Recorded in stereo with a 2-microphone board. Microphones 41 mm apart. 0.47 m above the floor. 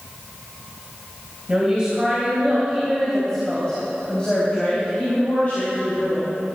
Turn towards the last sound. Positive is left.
turn(degrees=50)  # may be behind; listen again after turning